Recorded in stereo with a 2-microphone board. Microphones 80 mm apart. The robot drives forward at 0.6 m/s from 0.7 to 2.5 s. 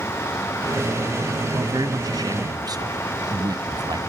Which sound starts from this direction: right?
A man speaking, at 1.5 s.